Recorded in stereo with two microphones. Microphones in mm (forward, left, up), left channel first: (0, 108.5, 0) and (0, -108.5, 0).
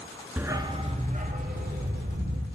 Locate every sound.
0.4 s a dog barking: 5° right (ahead or behind), 0.6 m; by 2.5 s 55° right (ahead or behind), 1.6 m